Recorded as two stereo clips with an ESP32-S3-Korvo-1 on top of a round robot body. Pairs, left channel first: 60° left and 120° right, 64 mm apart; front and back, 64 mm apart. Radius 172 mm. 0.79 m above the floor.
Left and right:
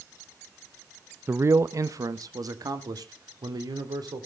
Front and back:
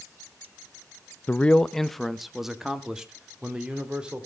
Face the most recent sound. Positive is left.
turn(degrees=-105)